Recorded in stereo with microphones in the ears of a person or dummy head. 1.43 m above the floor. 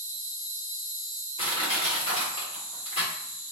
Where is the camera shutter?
I don't hear a camera shutter.